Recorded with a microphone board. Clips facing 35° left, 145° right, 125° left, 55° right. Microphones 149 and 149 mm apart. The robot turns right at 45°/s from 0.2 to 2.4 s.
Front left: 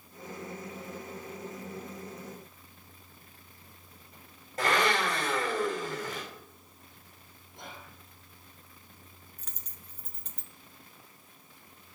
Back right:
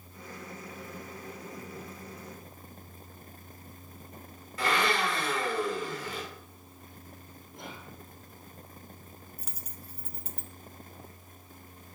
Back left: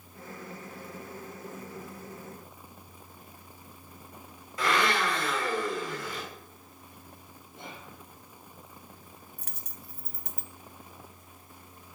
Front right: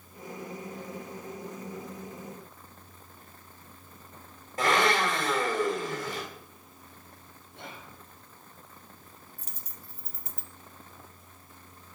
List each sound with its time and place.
4.6 s a blender: 10° right, 4.5 m
7.5 s whispering: 55° right, 5.5 m
9.4 s a dropped coin: 135° left, 0.8 m